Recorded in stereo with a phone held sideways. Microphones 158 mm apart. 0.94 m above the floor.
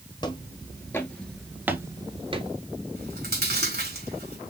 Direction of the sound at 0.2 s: 30° left (ahead or behind).